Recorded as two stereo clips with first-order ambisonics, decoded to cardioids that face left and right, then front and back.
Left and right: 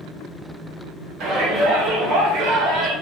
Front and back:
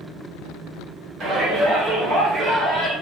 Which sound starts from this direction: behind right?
A shout, at 1.2 s.